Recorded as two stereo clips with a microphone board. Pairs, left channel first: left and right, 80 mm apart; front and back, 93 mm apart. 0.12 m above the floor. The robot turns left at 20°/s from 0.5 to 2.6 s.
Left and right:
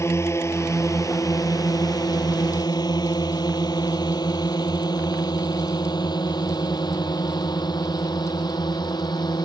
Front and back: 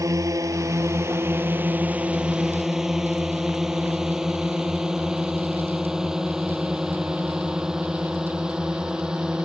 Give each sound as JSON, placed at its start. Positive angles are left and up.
{"t": 0.0, "sound": "a drone", "azimuth_deg": 135}